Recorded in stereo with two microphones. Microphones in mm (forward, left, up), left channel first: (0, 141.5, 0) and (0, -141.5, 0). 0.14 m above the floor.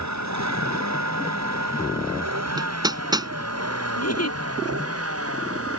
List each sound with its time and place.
0.0 s a vehicle: 80° right; by 5.8 s 55° right (ahead or behind)
2.6 s hammering: 15° right (ahead or behind)
4.0 s a giggle: 70° left (ahead or behind)